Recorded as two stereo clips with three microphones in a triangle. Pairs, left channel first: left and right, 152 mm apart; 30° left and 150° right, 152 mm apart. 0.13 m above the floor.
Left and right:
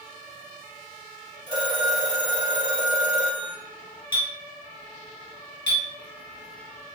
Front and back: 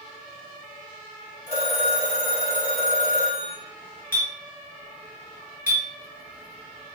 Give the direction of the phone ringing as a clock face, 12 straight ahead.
11 o'clock.